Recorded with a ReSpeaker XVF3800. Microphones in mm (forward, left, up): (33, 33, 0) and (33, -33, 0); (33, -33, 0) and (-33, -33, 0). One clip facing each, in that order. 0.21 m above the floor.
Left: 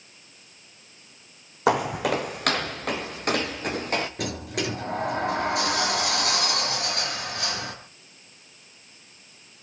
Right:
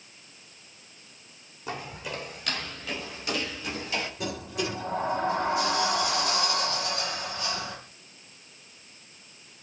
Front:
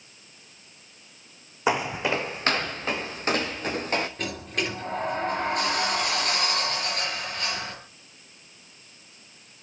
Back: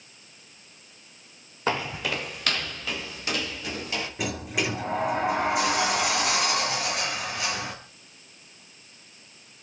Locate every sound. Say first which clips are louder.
1.7 s footsteps: left 14 dB, front 3 dB; 75° left, 0.8 m; by 4.1 s 45° left, 2.5 m
4.2 s a sliding door: left 2 dB, back 1 dB; 95° left, 3.5 m